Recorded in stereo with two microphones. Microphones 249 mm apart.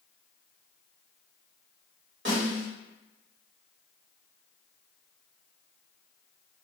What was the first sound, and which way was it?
A snare drum, 50° right (ahead or behind).